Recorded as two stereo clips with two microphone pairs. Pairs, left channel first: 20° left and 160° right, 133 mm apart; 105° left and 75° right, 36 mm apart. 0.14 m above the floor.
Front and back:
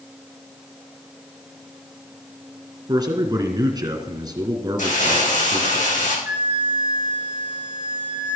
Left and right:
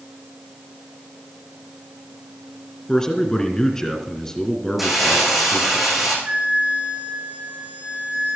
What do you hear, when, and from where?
2.9 s a man speaking: 165° left, 2 m
4.8 s crumpling: 10° left, 7 m
6.2 s a flute: 105° right, 2.5 m